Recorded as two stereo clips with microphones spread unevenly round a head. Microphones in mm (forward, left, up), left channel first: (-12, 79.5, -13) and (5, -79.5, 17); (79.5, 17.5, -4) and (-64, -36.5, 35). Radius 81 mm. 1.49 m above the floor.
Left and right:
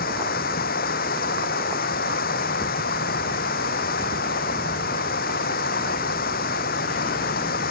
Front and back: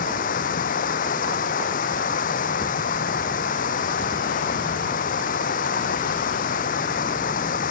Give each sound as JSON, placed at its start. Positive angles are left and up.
{"t": 0.0, "sound": "running water", "azimuth_deg": 60}